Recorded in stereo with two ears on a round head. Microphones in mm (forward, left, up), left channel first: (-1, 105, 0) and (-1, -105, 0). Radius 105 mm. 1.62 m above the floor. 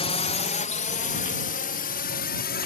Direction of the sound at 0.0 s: 25° left (ahead or behind).